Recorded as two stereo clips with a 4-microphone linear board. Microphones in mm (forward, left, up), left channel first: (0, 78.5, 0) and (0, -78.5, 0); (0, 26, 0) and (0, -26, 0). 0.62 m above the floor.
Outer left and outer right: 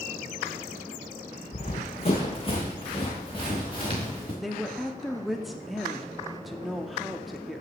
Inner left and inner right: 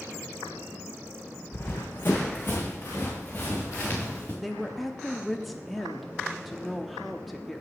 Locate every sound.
1.5 s running footsteps: 45° left (ahead or behind), 1.7 m; by 4.3 s 35° left (ahead or behind), 3.5 m
4.4 s a woman speaking: centre (ahead or behind), 0.8 m